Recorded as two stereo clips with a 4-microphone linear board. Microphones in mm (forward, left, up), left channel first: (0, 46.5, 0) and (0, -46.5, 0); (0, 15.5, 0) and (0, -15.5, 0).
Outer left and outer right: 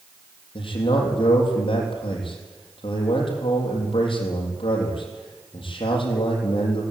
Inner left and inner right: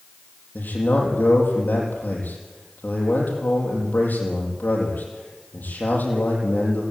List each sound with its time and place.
0.6 s a man speaking: 80° left, 6.5 m